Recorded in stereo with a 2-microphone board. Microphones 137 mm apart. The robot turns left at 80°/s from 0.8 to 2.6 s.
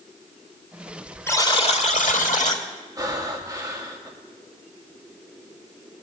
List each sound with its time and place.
1.3 s a buzzer: 160° left, 1.2 m; by 2.6 s 55° left, 1.2 m
3.0 s breathing: 30° right (ahead or behind), 1.6 m